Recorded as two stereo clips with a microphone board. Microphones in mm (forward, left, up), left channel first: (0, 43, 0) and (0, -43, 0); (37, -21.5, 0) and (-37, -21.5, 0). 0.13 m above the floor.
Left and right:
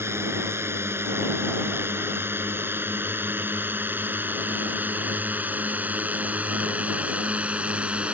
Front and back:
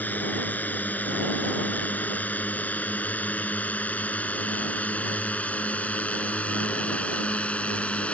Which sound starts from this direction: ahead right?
A drone, at 0.0 s.